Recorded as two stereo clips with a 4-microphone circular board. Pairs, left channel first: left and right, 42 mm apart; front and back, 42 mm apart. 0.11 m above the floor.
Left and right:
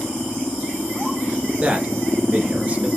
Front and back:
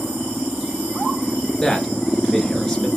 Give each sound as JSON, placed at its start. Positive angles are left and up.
{"t": 1.6, "sound": "a man speaking", "azimuth_deg": -75, "distance_m": 1.7}